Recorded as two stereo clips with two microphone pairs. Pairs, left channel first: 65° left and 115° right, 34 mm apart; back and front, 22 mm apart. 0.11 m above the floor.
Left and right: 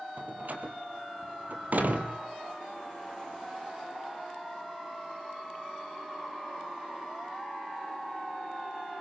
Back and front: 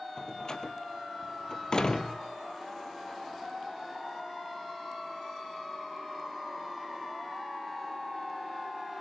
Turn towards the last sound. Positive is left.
turn(degrees=-130)